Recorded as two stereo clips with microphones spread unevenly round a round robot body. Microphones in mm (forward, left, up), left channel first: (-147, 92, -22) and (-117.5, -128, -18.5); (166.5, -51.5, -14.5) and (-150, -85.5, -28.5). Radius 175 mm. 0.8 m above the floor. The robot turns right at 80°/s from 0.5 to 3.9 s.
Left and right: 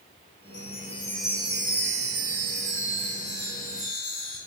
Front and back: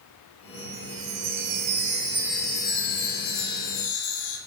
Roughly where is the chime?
Behind left.